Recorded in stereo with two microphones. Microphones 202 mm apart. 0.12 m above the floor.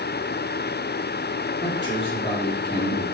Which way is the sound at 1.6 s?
25° left (ahead or behind).